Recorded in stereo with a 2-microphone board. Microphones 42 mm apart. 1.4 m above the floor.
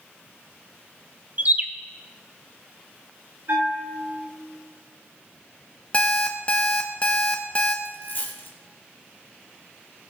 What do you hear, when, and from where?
1.4 s a bird: 40° right (ahead or behind), 0.5 m
3.5 s a bell: 60° right (ahead or behind), 3 m
5.9 s an alarm clock: 30° left (ahead or behind), 0.8 m
7.8 s a dropped coin: 55° left (ahead or behind), 2 m